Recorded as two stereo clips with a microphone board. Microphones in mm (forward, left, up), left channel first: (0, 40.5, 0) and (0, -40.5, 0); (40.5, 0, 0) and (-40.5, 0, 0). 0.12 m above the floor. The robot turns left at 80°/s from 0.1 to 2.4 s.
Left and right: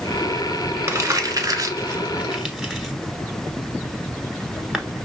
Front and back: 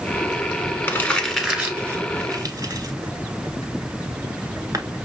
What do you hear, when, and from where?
0.9 s crumpling: 50° right, 1.1 m; by 4.8 s 170° right, 1.1 m